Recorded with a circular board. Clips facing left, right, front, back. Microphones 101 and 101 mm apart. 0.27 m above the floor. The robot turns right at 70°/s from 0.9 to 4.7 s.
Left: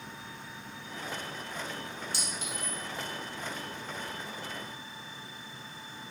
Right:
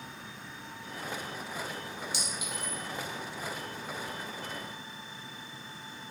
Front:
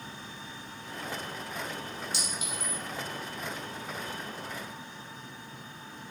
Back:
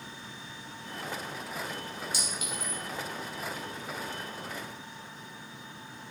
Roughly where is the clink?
Ahead right.